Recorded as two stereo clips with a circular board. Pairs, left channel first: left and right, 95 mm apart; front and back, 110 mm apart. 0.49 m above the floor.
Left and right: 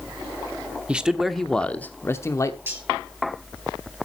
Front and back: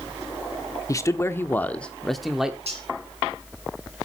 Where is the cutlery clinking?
155° right, 5 m.